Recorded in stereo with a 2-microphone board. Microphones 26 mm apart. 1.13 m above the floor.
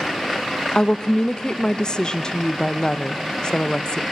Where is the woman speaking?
40° left (ahead or behind), 0.6 m.